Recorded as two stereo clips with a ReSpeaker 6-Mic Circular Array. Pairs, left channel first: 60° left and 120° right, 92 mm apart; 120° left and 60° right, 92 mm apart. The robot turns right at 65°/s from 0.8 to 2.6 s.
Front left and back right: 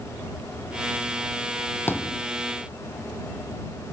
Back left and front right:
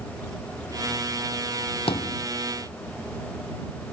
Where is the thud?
125° left; by 2.2 s 150° left.